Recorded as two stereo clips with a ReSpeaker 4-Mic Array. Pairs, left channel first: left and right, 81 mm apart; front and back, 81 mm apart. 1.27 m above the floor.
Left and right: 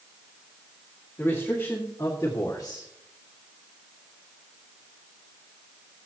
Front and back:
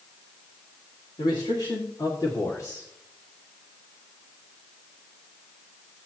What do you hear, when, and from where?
1.2 s a man speaking: 25° left, 2.5 m; by 2.9 s 55° left, 1.8 m